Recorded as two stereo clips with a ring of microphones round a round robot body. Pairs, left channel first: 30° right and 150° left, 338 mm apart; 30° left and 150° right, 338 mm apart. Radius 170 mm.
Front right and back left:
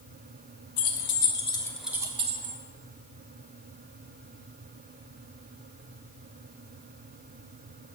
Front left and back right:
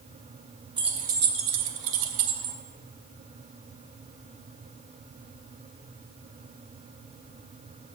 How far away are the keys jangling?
About 1.0 m.